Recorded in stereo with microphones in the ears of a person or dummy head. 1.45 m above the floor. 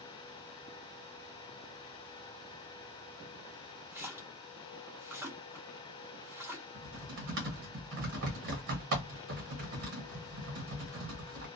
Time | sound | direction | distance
3.9 | a splash | 10° right (ahead or behind) | 0.7 m
6.7 | typing on a keyboard | 45° right (ahead or behind) | 0.7 m